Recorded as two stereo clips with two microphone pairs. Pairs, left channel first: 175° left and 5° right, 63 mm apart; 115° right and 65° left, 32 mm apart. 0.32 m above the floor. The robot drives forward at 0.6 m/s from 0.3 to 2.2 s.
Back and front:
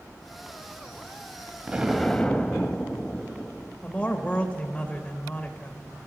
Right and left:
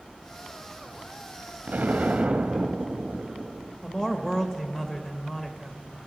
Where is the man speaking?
155° right, 0.9 m.